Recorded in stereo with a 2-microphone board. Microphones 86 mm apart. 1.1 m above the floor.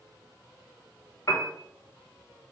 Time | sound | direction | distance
1.3 | a piano | 45° left (ahead or behind) | 0.8 m